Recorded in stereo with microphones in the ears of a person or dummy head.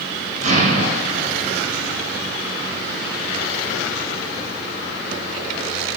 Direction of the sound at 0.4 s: 40° right (ahead or behind).